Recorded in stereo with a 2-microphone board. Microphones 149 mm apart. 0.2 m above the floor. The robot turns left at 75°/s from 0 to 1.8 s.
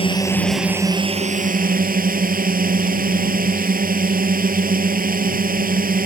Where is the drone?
40° left; by 6.1 s 95° right.